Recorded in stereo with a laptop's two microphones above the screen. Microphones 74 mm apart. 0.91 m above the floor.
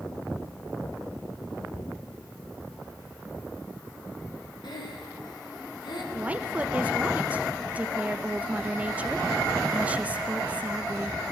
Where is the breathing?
70° left (ahead or behind), 1.6 m.